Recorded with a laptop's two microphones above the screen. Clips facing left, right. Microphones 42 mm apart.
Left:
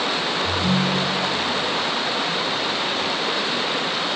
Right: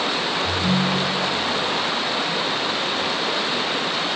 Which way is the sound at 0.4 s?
5° right (ahead or behind).